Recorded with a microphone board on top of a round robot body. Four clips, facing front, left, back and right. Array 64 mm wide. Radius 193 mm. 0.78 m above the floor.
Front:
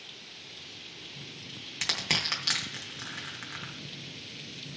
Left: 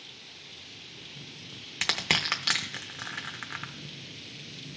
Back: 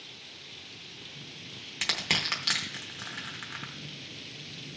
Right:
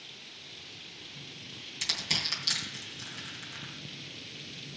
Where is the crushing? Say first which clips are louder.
Left 8 dB, back 1 dB; 90° left, 0.8 m.